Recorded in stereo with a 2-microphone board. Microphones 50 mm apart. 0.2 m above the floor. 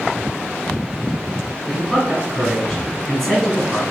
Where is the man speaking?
15° left (ahead or behind), 4 m.